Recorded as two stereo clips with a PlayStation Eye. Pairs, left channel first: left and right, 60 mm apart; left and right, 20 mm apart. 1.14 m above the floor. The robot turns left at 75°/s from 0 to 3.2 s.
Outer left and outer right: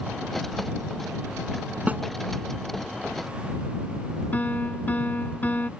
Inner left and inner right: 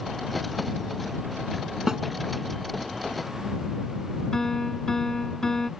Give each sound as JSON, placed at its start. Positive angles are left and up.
{"t": 1.9, "sound": "a snare drum", "side_deg": -25}
{"t": 4.3, "sound": "a piano", "side_deg": 30}